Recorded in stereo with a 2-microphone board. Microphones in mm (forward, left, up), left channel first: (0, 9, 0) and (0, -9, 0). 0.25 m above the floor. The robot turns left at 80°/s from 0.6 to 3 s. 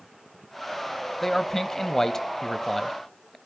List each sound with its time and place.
1.2 s a man speaking: 15° left (ahead or behind), 0.9 m; by 3.4 s centre (ahead or behind), 0.9 m